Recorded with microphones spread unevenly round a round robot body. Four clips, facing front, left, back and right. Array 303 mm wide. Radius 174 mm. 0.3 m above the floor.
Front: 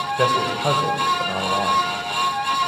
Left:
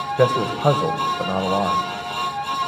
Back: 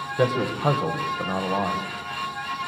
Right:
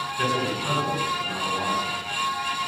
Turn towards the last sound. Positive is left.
turn(degrees=100)